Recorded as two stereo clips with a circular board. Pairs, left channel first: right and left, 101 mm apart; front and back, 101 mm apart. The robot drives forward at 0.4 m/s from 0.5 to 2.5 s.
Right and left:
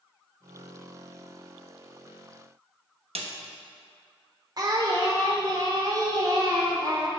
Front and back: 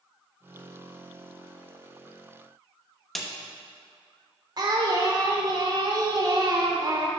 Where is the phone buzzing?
No phone buzzing in this recording.